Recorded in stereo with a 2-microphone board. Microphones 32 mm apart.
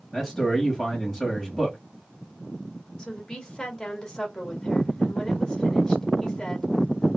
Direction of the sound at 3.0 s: 20° left (ahead or behind).